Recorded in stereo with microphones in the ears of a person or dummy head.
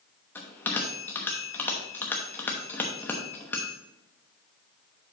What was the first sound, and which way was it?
A bell, 10° left (ahead or behind).